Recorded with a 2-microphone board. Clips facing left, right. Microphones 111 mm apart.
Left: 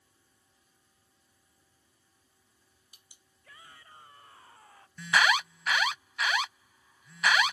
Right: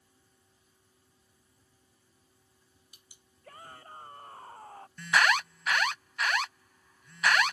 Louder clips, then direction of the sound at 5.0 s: Even; 5° left (ahead or behind).